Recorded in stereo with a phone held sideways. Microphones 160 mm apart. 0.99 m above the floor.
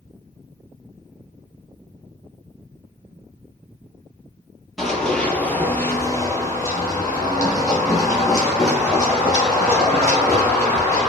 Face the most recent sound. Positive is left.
turn(degrees=20)  # may be behind; listen again after turning